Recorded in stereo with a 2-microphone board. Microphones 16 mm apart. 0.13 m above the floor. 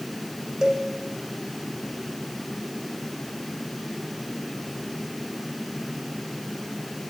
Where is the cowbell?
45° right (ahead or behind), 6 m.